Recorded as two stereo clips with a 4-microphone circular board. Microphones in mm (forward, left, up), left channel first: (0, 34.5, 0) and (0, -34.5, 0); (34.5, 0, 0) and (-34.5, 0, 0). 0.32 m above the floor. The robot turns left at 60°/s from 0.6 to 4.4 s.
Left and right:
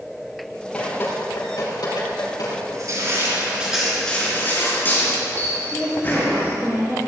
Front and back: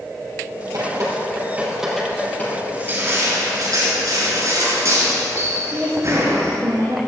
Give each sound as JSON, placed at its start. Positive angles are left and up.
{"t": 0.7, "sound": "dripping", "azimuth_deg": 165, "distance_m": 5.5}
{"t": 2.7, "sound": "crushing", "azimuth_deg": -110, "distance_m": 4.5}
{"t": 5.7, "sound": "a woman speaking", "azimuth_deg": -175, "distance_m": 4.5}